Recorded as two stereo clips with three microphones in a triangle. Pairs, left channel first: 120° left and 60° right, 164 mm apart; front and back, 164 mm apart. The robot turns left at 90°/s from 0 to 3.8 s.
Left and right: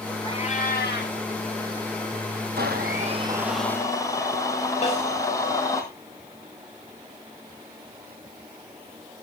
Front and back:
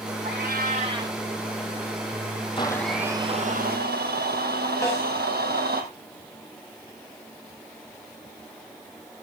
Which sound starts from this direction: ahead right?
A blender, at 2.6 s.